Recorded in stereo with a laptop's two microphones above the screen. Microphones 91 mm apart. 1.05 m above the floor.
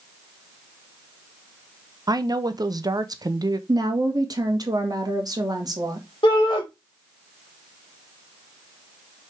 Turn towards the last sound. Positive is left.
turn(degrees=65)  # may be behind; listen again after turning